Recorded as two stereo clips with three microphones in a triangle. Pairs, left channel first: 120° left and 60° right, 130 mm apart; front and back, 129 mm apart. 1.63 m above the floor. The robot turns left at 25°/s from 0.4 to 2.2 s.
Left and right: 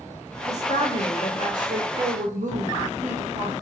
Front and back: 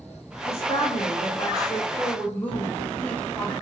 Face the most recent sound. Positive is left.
turn(degrees=-75)